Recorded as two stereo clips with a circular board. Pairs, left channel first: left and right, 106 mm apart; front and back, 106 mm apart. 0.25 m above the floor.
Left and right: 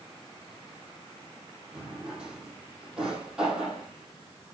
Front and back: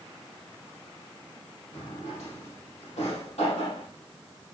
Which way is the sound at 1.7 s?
5° right.